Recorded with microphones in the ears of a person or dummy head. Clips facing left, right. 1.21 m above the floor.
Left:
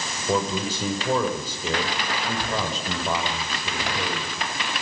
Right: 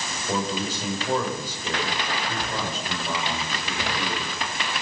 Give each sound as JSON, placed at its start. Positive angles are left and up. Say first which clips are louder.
{"t": 0.3, "sound": "a man speaking", "louder": "left 3 dB", "side_deg": 85, "distance_m": 4.5}